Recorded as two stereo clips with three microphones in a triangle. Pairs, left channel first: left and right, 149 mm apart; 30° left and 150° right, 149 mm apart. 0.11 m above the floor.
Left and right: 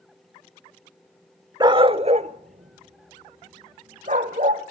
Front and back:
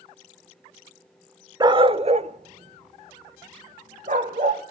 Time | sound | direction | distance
1.6 | a dog barking | 120° right | 0.5 m